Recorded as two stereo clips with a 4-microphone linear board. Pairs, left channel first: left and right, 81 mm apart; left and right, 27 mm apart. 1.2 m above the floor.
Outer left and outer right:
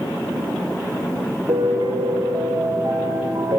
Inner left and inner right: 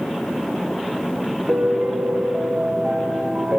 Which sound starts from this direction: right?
A piano, at 1.5 s.